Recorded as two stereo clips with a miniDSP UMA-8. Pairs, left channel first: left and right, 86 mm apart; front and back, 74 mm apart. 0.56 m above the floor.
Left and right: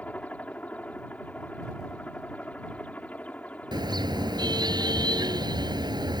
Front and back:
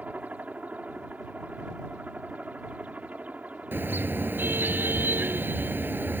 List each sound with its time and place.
0.0 s a helicopter: 140° left
3.7 s a car horn: 120° right